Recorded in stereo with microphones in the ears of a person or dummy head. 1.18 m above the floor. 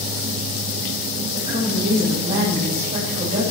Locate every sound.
1.3 s a woman speaking: 50° right (ahead or behind), 6.5 m